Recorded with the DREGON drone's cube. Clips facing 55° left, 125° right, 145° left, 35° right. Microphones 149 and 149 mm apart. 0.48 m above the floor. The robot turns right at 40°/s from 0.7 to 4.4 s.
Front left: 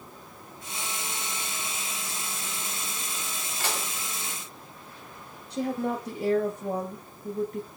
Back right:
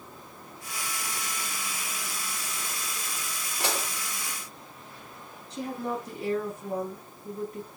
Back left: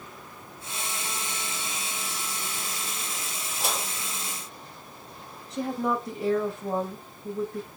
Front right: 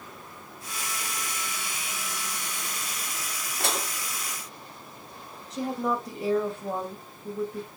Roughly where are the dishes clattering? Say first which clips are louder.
Back right 2 dB, front right 1 dB; ahead right.